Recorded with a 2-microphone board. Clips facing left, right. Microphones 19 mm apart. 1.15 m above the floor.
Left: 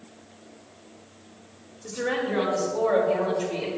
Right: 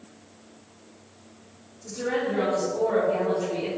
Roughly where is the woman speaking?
Left.